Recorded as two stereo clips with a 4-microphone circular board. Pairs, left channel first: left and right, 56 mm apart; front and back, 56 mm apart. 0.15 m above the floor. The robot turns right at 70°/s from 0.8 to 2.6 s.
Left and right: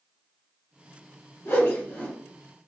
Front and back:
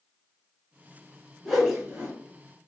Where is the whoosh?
85° left, 1.4 m; by 2.1 s 130° left, 1.4 m.